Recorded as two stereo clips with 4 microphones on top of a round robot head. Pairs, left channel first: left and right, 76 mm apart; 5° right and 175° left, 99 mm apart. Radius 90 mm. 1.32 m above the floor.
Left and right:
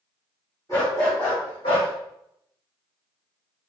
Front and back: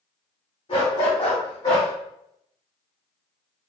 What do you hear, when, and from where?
0.7 s a dog barking: 25° left, 2.0 m; by 1.9 s 35° left, 1.2 m